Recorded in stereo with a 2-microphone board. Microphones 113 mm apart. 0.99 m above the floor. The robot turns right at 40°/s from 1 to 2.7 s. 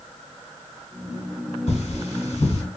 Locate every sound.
1.7 s cutlery clinking: 75° left (ahead or behind), 1.6 m; by 2.6 s 65° left (ahead or behind), 1.6 m